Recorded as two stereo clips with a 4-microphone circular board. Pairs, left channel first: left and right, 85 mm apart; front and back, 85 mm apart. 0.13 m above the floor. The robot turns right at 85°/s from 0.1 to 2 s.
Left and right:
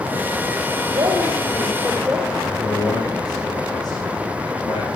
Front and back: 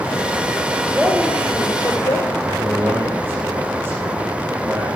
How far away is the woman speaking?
About 3.5 m.